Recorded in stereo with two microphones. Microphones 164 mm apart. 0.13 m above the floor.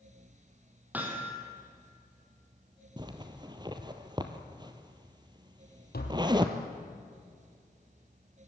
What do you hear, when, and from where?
0.9 s hammering: 10° right (ahead or behind), 3.5 m
3.0 s a zipper: 25° right (ahead or behind), 1.6 m
5.9 s tapping: 75° left (ahead or behind), 3 m